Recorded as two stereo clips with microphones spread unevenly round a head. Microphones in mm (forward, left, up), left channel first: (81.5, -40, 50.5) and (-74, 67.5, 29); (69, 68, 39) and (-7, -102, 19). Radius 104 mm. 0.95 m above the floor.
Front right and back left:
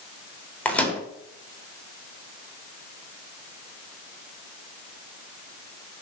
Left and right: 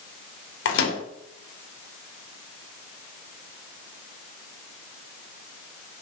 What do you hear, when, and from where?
0.7 s a microwave: 50° left, 3 m